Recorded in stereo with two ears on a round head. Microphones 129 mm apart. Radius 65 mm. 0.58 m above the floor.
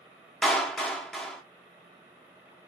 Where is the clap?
5° left (ahead or behind), 1.2 m.